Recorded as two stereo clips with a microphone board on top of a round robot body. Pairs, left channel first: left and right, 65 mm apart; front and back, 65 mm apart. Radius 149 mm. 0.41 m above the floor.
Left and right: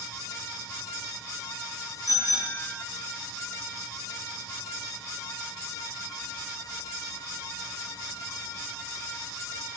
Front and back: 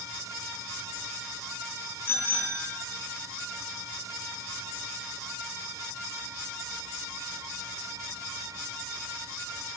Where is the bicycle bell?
55° left, 5 m.